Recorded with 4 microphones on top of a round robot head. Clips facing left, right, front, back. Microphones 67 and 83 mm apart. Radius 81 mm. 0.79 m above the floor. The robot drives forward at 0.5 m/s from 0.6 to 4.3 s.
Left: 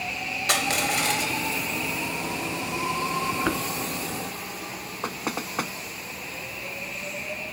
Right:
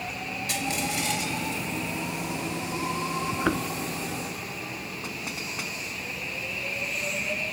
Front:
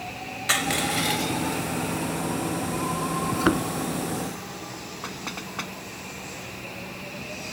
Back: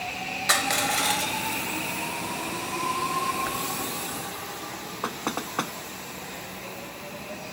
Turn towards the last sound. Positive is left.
turn(degrees=130)